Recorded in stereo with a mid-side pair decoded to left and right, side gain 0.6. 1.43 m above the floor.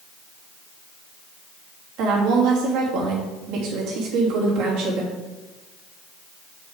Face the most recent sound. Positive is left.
turn(degrees=-70)